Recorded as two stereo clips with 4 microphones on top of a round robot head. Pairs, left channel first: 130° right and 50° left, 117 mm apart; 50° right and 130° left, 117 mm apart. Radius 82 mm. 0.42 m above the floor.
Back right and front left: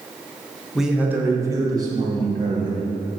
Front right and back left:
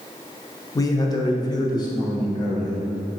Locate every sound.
0.8 s a man speaking: 35° right, 0.9 m; by 2.9 s 5° left, 2.5 m